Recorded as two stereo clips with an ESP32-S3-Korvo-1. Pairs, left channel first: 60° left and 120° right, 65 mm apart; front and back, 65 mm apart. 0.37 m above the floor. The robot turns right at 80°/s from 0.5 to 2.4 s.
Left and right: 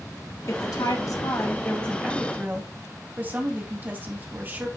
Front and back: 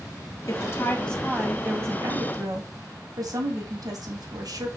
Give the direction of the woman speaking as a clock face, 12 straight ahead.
11 o'clock.